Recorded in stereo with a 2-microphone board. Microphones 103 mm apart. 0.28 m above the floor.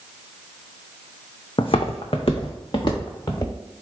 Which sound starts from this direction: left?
Footsteps, at 1.6 s.